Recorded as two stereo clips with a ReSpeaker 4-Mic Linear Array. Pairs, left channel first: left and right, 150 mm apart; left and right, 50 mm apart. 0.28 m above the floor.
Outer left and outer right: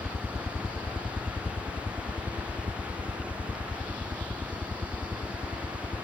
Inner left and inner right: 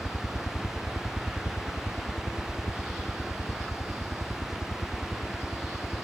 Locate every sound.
0.0 s a helicopter: 25° left (ahead or behind); by 6.0 s centre (ahead or behind)